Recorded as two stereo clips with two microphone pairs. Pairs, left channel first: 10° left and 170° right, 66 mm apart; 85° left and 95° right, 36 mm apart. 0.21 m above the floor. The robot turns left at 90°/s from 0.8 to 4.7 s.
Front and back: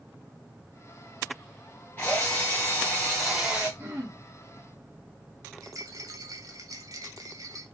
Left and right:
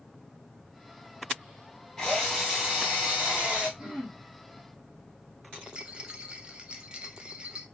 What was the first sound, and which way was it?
A drill, 35° left.